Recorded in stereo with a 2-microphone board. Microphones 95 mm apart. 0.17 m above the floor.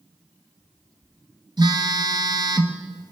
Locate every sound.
1.6 s a phone buzzing: 50° right (ahead or behind), 1.4 m